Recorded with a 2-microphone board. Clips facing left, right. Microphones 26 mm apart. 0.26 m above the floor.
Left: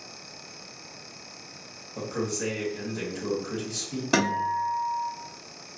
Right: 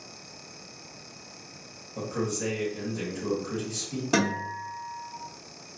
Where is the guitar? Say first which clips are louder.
Left 3 dB; 25° left (ahead or behind), 1.0 m.